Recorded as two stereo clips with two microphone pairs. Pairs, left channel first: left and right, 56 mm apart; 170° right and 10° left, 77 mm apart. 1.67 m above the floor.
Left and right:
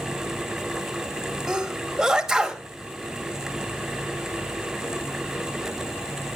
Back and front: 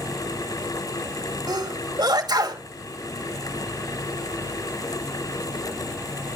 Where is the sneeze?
10° right, 3 m.